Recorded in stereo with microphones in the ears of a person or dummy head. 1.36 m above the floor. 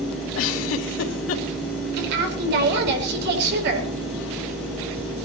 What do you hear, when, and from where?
0.3 s a giggle: 75° left (ahead or behind), 2.5 m
2.0 s a woman speaking: 60° right (ahead or behind), 5 m